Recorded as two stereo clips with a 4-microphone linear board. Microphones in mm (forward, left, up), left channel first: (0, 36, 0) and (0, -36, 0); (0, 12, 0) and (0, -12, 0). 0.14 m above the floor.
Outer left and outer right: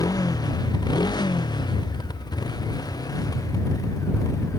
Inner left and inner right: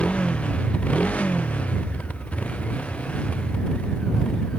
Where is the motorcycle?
60° left (ahead or behind); by 4.6 s 50° left (ahead or behind).